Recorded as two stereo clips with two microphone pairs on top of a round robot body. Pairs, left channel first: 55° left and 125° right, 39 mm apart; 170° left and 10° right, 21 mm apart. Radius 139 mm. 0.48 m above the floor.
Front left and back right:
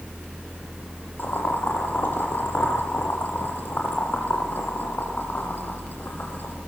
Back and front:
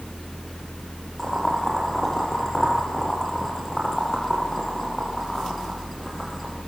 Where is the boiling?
85° left, 8 m.